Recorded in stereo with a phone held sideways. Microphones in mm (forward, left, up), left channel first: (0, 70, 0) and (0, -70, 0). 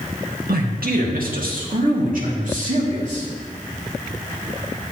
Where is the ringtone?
No ringtone in this recording.